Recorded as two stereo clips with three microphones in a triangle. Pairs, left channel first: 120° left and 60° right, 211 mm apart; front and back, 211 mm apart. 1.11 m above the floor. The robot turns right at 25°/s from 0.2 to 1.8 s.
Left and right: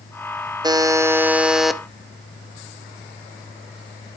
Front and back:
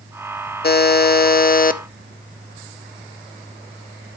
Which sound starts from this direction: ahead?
A buzzer, at 0.6 s.